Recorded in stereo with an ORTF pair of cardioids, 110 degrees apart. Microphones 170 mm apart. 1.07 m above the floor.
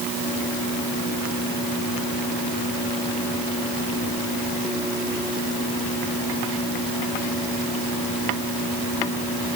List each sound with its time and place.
Only background noise.